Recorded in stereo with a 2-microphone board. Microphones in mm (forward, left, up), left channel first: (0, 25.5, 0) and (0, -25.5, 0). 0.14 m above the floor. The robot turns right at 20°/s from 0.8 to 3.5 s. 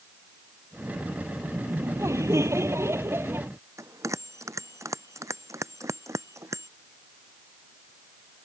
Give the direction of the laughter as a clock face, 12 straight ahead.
3 o'clock.